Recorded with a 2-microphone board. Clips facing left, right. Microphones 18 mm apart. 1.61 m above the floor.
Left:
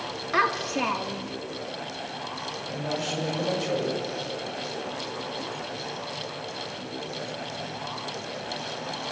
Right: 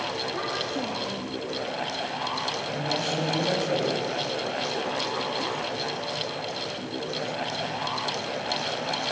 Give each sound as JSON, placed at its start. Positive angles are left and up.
{"t": 0.3, "sound": "a child speaking", "side_deg": 65, "distance_m": 2.0}
{"t": 2.7, "sound": "a man speaking", "side_deg": 5, "distance_m": 7.0}